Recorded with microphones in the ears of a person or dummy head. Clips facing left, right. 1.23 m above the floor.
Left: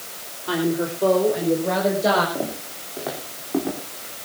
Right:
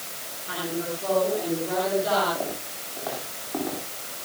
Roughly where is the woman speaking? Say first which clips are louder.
Left 8 dB; left.